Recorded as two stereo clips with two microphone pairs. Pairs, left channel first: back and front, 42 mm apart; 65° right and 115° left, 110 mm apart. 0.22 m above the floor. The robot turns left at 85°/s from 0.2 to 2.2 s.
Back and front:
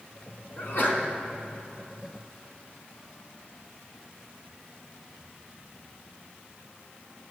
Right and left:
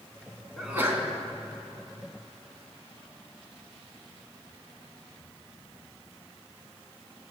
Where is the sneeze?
155° right, 1.8 m; by 1.1 s 165° left, 1.8 m.